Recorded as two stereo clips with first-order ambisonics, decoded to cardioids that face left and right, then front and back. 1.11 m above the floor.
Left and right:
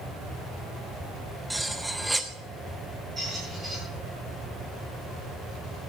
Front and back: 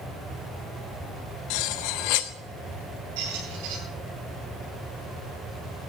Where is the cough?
I don't hear a cough.